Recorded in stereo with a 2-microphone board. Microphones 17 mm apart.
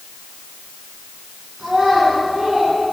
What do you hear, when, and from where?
1.6 s a child speaking: 60° right (ahead or behind), 10 m; by 2.8 s 65° right (ahead or behind), 9.5 m